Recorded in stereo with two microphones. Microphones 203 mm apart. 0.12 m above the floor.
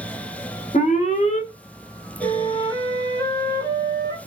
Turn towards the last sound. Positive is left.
turn(degrees=20)  # may be behind; listen again after turning